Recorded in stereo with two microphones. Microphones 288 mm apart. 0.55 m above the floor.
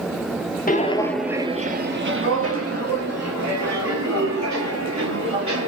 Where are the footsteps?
30° left (ahead or behind), 0.6 m; by 5.7 s 70° right (ahead or behind), 2.5 m.